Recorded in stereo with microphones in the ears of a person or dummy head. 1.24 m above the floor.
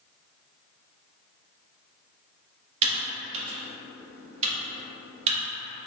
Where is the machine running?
I don't hear a machine running.